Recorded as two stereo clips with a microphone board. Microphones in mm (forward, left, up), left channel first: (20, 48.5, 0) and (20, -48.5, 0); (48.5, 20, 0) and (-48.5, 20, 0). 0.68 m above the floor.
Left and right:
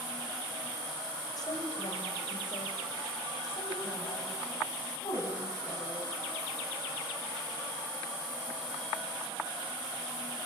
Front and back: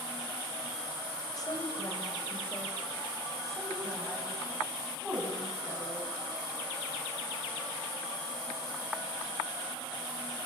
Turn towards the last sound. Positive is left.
turn(degrees=110)